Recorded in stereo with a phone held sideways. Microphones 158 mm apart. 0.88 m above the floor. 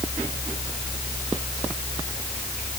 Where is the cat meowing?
No cat meowing in this recording.